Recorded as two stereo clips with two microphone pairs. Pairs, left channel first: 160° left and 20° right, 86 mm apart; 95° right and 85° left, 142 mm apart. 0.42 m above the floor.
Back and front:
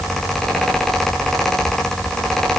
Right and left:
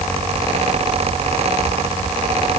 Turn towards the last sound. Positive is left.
No sound to turn to.